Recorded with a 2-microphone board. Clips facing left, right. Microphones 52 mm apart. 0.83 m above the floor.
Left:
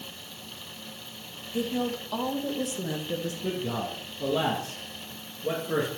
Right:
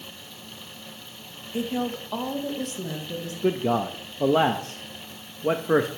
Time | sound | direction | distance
1.5 | a woman speaking | 25° right (ahead or behind) | 1.0 m
3.4 | a man speaking | 45° right (ahead or behind) | 0.7 m